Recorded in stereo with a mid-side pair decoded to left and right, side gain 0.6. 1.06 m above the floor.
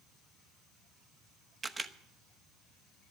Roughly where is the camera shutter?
Ahead.